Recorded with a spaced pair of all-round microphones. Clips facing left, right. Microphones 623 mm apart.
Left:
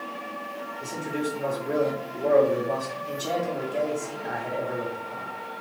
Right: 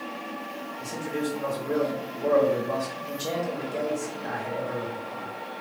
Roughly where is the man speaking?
Right.